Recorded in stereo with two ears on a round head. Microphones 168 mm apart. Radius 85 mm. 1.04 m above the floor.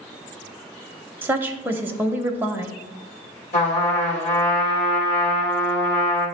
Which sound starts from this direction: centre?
A woman speaking, at 1.2 s.